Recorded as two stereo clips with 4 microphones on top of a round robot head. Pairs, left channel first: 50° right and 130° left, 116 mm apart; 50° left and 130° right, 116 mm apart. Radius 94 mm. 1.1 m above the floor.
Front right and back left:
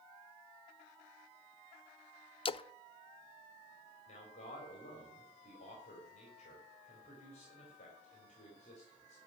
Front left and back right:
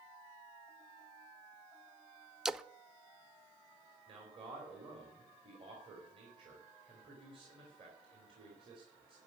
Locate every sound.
2.5 s a splash: 45° right, 0.5 m
4.1 s a man speaking: 80° right, 3 m